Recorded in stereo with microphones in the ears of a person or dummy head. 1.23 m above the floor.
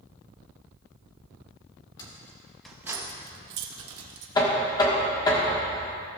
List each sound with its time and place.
2.0 s keys jangling: 20° left (ahead or behind), 1.6 m; by 4.2 s 70° right (ahead or behind), 1.4 m
4.3 s knocking: 25° left (ahead or behind), 1.2 m